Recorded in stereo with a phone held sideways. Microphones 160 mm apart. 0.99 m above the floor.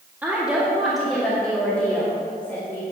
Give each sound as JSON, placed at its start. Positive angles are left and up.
{"t": 0.2, "sound": "a woman speaking", "side_deg": -10, "distance_m": 1.9}